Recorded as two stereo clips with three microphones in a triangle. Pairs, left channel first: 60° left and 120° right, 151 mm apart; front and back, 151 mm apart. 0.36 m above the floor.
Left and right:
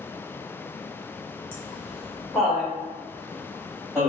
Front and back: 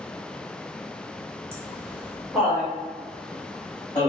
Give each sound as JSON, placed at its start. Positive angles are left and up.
{"t": 1.5, "sound": "laughter", "azimuth_deg": 125, "distance_m": 1.3}